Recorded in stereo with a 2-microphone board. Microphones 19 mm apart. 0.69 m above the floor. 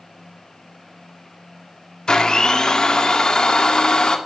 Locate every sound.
2.1 s a blender: 40° left (ahead or behind), 2 m